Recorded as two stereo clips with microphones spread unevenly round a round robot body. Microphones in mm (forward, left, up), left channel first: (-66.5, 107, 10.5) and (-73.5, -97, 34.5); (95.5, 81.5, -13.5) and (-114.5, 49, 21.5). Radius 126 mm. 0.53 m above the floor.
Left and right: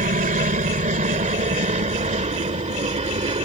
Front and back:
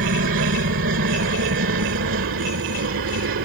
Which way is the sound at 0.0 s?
135° right.